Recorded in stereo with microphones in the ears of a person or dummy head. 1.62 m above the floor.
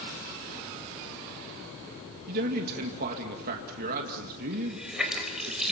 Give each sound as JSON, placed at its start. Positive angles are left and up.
{"t": 2.3, "sound": "a man speaking", "side_deg": -50, "distance_m": 2.0}
{"t": 4.5, "sound": "a running tap", "side_deg": -5, "distance_m": 4.5}